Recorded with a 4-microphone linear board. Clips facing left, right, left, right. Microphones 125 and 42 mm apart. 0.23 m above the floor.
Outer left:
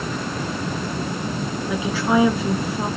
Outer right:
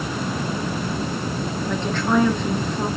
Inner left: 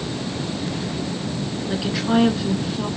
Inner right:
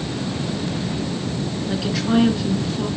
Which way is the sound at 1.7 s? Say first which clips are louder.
Outer left 1 dB, even; 5° left (ahead or behind).